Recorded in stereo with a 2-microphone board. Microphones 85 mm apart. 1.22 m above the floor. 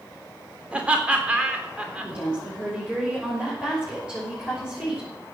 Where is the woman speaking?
15° right (ahead or behind), 6 m.